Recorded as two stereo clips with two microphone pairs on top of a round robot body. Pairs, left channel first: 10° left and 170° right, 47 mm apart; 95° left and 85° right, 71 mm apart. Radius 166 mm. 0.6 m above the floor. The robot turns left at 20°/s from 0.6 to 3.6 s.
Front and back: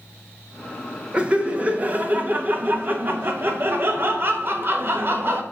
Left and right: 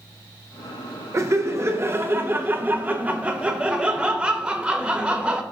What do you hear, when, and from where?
1.1 s laughter: 105° right, 1.4 m; by 5.4 s 155° right, 1.4 m